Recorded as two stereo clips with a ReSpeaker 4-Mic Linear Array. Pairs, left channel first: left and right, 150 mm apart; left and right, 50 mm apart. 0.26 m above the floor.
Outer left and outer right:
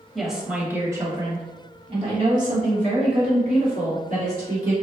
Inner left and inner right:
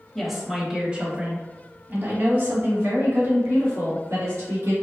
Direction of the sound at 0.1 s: Centre (ahead or behind).